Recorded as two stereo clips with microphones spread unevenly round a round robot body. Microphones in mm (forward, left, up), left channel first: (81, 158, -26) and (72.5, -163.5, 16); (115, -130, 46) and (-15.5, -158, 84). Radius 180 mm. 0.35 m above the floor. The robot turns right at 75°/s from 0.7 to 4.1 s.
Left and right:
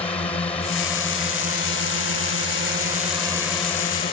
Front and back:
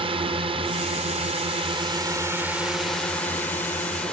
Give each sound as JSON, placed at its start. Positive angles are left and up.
{"t": 0.0, "sound": "a drone", "azimuth_deg": 155}